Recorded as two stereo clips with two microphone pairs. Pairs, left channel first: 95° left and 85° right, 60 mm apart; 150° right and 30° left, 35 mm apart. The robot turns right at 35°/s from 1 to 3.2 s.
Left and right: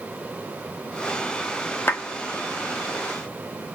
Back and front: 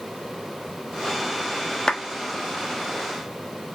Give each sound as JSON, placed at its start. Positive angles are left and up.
{"t": 1.9, "sound": "a clap", "azimuth_deg": 145, "distance_m": 1.3}